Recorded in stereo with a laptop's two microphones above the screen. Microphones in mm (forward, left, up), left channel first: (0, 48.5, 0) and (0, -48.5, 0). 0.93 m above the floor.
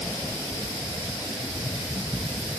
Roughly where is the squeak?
No squeak in this recording.